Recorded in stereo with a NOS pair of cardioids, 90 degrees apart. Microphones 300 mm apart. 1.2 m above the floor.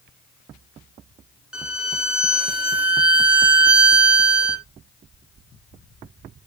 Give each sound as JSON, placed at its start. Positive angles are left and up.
{"t": 1.5, "sound": "a violin", "azimuth_deg": -5, "distance_m": 0.8}